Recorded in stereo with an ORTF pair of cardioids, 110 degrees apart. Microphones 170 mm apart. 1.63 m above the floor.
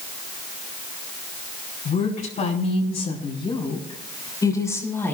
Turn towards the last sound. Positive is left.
turn(degrees=10)